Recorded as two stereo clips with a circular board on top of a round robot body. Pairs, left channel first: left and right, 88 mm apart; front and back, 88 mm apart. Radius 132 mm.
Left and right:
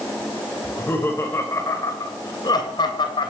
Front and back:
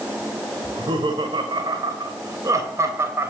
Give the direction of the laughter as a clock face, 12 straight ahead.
7 o'clock.